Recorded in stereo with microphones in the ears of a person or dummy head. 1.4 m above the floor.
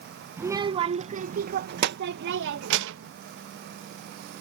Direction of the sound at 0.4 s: 20° right (ahead or behind).